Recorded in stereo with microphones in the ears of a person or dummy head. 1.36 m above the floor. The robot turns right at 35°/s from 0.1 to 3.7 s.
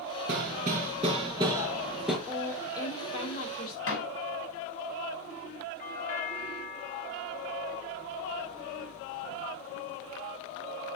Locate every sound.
0.3 s hammering: 60° right, 5 m; by 2.2 s 5° left, 5 m
2.3 s a woman speaking: 5° left, 5 m; by 3.8 s 55° left, 5 m
3.9 s a door slam: 80° left, 6 m
5.8 s a doorbell: 40° left (ahead or behind), 2.5 m